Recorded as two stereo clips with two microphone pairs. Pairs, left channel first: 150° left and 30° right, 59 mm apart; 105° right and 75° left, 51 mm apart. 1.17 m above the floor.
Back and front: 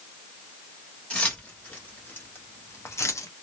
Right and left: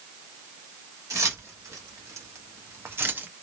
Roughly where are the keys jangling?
Left.